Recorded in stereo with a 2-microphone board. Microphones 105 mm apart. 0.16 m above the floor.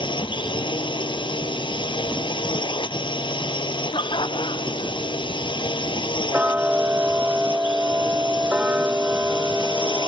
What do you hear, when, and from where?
0.0 s a drone: 55° left (ahead or behind)
3.9 s laughter: 55° left (ahead or behind)
6.3 s ticking: 15° right (ahead or behind)